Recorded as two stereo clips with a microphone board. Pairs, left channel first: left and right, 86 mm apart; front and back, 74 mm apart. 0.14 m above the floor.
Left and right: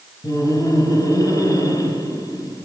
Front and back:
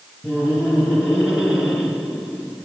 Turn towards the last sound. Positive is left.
turn(degrees=110)